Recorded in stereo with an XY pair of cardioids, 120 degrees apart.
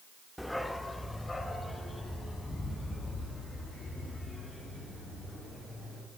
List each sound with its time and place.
0.4 s a dog barking: straight ahead, 1.1 m; by 6.0 s 20° left, 9 m